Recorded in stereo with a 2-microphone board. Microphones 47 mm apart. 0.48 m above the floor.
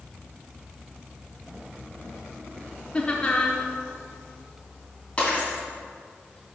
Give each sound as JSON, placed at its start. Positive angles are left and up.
{"t": 2.9, "sound": "laughter", "side_deg": 25, "distance_m": 0.7}
{"t": 5.2, "sound": "breaking glass", "side_deg": 25, "distance_m": 2.5}